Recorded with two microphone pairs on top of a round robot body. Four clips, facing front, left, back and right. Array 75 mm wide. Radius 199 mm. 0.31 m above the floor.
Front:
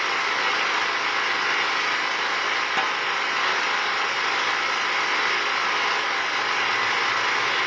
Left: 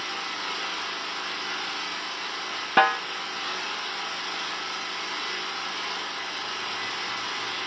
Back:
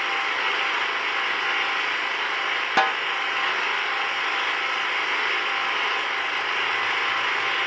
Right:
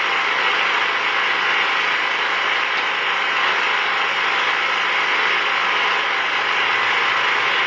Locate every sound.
0.0 s an engine running: 80° right, 1.9 m
2.8 s a snare drum: 120° left, 0.8 m